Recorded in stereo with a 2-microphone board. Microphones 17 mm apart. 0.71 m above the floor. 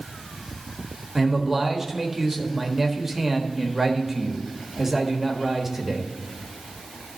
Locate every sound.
1.1 s a man speaking: 20° right (ahead or behind), 1.2 m